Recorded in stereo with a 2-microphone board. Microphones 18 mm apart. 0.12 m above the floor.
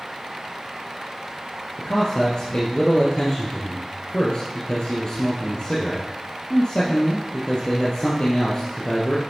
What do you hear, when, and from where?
1.8 s a man speaking: 55° left (ahead or behind), 2.5 m